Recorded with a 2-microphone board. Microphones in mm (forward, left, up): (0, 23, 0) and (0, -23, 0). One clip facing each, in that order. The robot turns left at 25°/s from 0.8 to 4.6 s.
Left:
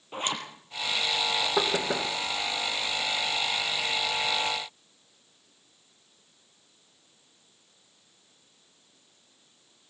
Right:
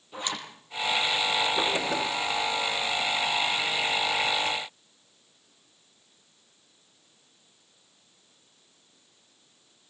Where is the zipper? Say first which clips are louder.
Left 2 dB; 45° left (ahead or behind), 5 m.